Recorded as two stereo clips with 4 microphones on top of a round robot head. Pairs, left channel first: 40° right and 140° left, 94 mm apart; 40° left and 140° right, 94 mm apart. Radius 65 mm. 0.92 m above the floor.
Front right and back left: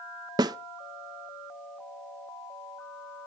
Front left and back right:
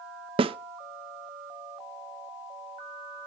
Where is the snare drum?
170° right, 0.6 m.